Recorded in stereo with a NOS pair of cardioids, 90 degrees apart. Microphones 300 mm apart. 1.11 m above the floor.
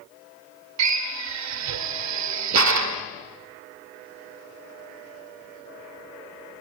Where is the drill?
70° right, 2 m.